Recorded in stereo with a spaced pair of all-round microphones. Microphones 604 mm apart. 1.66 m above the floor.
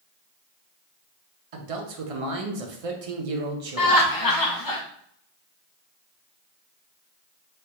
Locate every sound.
1.5 s a man speaking: 65° right (ahead or behind), 0.6 m
3.8 s laughter: 35° left (ahead or behind), 0.7 m